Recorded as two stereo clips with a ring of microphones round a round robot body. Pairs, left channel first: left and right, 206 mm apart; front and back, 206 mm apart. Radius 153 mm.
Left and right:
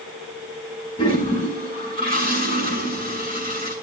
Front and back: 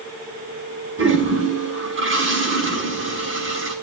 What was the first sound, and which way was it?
A toilet flushing, 160° left.